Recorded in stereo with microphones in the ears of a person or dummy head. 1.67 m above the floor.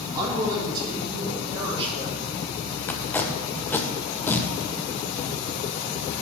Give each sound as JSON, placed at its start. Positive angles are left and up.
{"t": 0.1, "sound": "a woman speaking", "side_deg": -20, "distance_m": 3.5}
{"t": 2.9, "sound": "tape being pulled", "side_deg": 10, "distance_m": 0.8}